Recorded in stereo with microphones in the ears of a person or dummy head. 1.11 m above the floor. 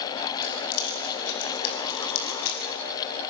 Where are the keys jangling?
50° left (ahead or behind), 6 m; by 2.6 s 60° left (ahead or behind), 6.5 m.